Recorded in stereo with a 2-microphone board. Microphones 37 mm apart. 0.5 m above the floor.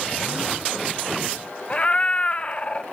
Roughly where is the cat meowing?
Left.